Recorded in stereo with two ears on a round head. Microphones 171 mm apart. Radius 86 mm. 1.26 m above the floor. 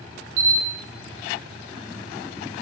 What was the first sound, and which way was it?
A camera shutter, 80° right.